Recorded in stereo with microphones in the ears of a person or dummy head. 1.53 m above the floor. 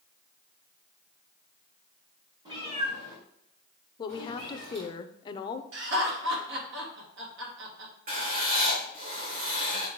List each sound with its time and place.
2.5 s a cat meowing: 25° right (ahead or behind), 1.8 m; by 4.9 s 70° right (ahead or behind), 3.5 m
4.0 s a woman speaking: 30° left (ahead or behind), 0.7 m
5.7 s laughter: 70° right (ahead or behind), 2.5 m
8.1 s writing: 45° right (ahead or behind), 1.9 m